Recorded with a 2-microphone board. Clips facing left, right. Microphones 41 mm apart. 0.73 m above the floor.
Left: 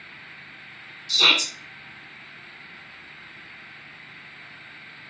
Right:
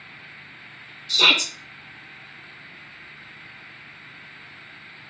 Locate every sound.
1.1 s a shout: 25° right (ahead or behind), 0.8 m